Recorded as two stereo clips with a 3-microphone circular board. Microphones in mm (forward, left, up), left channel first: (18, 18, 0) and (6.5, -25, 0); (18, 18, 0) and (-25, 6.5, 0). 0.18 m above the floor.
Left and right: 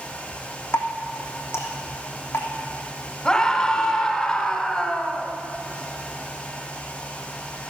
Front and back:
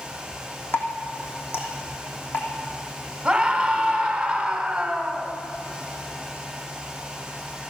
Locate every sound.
0.7 s dripping: 50° left, 3 m
3.2 s a scream: 130° left, 1.3 m